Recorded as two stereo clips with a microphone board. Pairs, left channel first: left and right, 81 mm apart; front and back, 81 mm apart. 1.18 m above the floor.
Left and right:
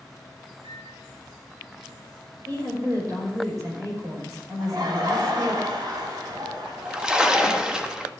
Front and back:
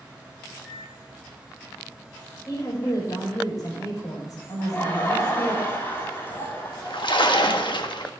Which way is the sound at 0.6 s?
90° right.